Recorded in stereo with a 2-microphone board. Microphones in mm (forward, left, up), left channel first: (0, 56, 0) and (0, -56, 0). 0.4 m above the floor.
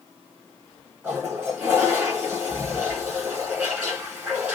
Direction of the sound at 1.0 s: 20° right (ahead or behind).